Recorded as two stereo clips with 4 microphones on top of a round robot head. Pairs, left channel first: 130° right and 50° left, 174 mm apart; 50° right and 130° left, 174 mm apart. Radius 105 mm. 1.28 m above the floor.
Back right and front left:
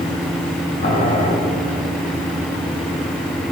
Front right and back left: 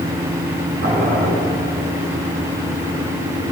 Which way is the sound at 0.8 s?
175° right.